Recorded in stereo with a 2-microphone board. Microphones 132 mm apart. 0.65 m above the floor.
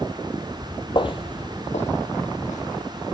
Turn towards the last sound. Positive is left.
turn(degrees=75)  # may be behind; listen again after turning